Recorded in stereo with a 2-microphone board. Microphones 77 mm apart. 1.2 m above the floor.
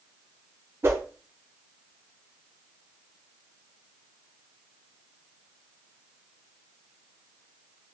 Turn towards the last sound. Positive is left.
turn(degrees=-30)  # may be behind; listen again after turning